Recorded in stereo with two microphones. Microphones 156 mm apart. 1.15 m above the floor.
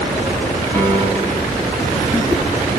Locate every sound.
0.7 s a piano: 10° left (ahead or behind), 6 m